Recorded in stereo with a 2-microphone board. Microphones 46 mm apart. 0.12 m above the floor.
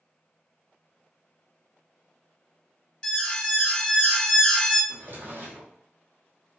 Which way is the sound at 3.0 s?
20° left (ahead or behind).